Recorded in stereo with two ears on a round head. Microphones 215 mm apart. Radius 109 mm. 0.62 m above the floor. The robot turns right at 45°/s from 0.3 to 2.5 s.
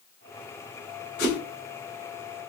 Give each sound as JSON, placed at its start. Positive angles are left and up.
{"t": 1.2, "sound": "a whoosh", "side_deg": 55, "distance_m": 3.0}